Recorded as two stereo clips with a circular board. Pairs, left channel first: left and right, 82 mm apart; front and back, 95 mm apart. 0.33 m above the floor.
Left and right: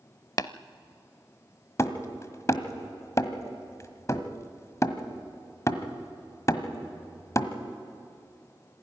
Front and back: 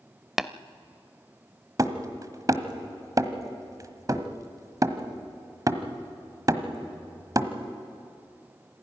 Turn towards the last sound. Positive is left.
turn(degrees=135)